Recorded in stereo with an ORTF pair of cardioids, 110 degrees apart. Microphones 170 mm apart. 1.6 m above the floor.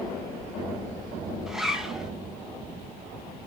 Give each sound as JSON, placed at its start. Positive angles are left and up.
{"t": 1.5, "sound": "a zipper", "azimuth_deg": -5, "distance_m": 2.5}